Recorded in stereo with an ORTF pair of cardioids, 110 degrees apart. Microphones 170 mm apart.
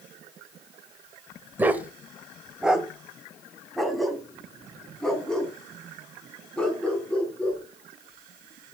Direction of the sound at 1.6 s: 10° right.